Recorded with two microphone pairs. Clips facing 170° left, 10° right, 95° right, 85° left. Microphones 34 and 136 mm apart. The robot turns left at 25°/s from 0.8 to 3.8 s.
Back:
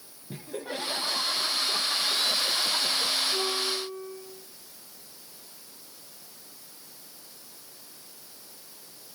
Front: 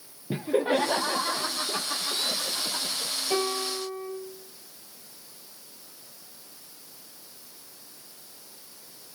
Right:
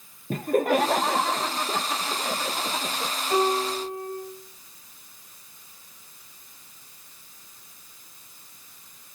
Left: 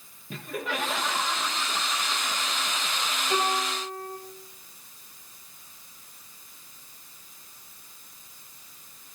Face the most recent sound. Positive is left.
turn(degrees=-20)